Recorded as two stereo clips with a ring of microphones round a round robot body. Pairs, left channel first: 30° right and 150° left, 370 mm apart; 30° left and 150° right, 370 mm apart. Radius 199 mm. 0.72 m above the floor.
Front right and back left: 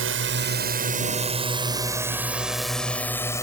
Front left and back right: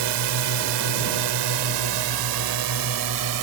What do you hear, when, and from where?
0.0 s a drone: 155° right; by 3.4 s 110° right